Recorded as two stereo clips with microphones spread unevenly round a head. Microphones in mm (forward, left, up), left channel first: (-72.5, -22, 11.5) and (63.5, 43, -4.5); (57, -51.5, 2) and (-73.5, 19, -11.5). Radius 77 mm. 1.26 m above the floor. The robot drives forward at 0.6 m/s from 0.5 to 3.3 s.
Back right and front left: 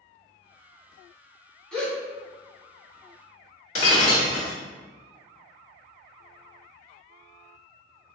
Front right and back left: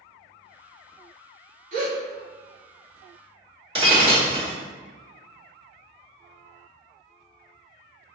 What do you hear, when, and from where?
1.7 s a gasp: 125° left, 1.8 m; by 2.0 s 130° left, 1.8 m
3.8 s breaking glass: 160° right, 1.3 m